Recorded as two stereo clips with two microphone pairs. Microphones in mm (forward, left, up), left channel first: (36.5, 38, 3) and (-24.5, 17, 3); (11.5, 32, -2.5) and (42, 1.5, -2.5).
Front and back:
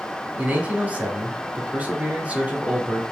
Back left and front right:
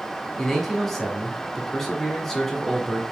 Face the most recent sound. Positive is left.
turn(degrees=-145)